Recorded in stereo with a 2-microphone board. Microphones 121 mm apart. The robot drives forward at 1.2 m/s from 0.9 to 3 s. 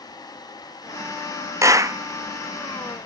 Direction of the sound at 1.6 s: 25° right (ahead or behind).